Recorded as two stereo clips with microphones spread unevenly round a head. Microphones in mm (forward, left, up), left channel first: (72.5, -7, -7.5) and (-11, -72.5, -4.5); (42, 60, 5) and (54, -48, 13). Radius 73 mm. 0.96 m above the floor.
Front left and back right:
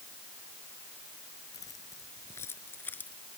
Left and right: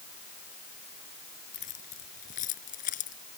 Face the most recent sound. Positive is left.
turn(degrees=120)